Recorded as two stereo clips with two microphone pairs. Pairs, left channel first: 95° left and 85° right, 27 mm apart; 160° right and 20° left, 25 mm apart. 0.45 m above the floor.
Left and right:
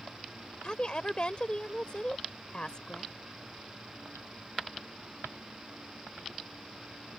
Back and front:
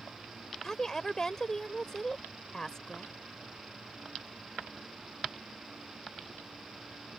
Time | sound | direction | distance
0.6 | a woman speaking | 140° left | ?